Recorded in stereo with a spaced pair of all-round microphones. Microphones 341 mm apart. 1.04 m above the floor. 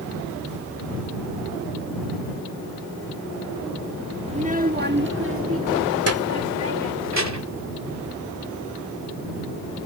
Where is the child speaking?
20° right (ahead or behind); by 7.7 s 55° right (ahead or behind).